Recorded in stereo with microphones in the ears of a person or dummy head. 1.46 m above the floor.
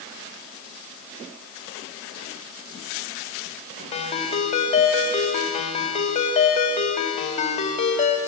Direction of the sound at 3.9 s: 35° left (ahead or behind).